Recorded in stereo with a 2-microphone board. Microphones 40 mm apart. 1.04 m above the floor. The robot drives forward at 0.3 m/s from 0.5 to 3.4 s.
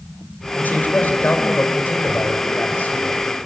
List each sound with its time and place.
0.6 s a man speaking: 55° left (ahead or behind), 4.5 m; by 3.4 s 45° left (ahead or behind), 5 m